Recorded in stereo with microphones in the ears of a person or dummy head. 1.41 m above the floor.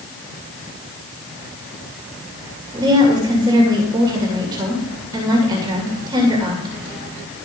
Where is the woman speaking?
25° right (ahead or behind), 2.5 m.